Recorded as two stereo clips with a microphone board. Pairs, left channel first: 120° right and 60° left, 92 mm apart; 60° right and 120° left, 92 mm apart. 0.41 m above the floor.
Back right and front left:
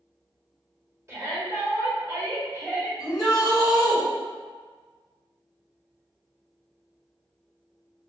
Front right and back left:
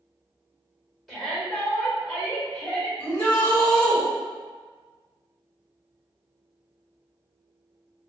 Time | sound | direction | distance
1.1 | a shout | 25° left | 1.5 m
3.0 | a shout | 105° right | 1.8 m